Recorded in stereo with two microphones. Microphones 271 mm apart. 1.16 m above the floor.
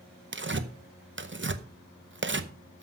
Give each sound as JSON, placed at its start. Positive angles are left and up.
{"t": 0.3, "sound": "tearing paper", "side_deg": -45, "distance_m": 0.8}